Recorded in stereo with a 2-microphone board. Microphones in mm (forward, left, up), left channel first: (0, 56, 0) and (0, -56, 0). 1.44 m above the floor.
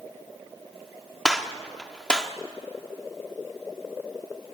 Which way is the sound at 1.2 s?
5° left (ahead or behind).